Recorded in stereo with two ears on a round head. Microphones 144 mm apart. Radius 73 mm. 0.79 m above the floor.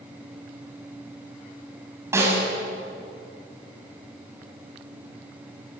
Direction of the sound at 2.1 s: 15° right (ahead or behind).